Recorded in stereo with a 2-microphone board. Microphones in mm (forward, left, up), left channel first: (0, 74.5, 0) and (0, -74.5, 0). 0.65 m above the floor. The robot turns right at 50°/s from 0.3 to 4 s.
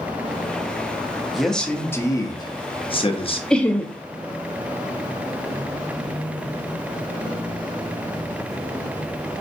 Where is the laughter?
5° left (ahead or behind), 0.5 m; by 3.9 s 15° left (ahead or behind), 0.5 m.